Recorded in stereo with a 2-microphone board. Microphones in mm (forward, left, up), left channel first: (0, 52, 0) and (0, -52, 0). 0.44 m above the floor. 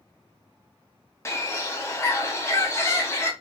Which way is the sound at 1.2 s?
25° left (ahead or behind).